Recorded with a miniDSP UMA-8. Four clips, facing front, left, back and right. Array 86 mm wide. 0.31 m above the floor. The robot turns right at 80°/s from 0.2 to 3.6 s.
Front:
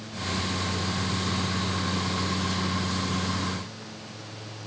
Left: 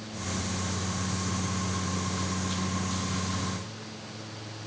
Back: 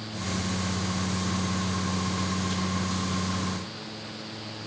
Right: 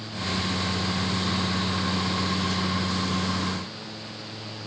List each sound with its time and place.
Only background noise.